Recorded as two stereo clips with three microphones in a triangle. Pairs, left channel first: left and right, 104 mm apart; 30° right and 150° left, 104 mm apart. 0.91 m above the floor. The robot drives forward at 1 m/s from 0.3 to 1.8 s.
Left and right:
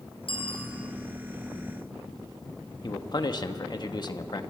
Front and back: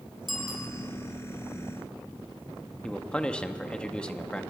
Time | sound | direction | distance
0.3 | a bicycle bell | 60° left | 6 m
2.8 | a man speaking | 50° left | 1.4 m